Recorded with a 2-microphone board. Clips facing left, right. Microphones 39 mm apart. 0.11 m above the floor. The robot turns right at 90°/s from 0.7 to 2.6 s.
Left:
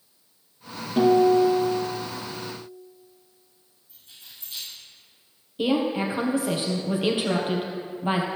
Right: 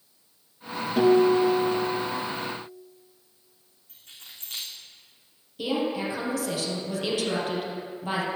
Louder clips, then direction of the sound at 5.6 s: Left 4 dB; 25° left (ahead or behind).